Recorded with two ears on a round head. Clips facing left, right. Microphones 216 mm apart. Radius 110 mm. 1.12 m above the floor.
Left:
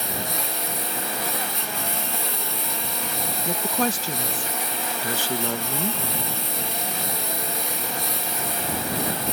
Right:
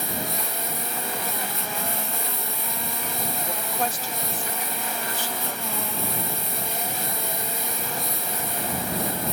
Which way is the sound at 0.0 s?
60° left (ahead or behind).